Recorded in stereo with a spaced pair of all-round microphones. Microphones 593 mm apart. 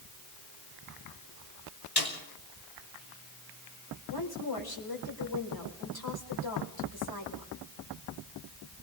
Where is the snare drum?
40° left (ahead or behind), 5.5 m.